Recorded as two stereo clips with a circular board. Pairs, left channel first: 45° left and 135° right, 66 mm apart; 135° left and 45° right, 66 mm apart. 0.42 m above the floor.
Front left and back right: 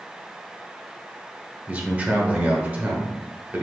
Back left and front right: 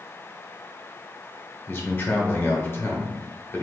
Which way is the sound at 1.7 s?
170° left.